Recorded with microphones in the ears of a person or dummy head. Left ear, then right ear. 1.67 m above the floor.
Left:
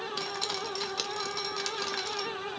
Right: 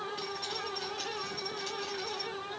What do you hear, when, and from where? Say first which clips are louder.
0.2 s dripping: left 4 dB; 60° left (ahead or behind), 1.1 m